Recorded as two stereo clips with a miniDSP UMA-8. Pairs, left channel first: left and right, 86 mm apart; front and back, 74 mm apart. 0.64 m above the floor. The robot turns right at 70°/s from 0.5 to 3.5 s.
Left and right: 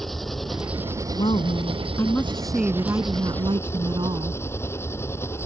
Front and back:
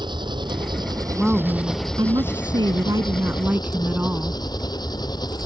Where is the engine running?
175° left; by 5.5 s 25° left.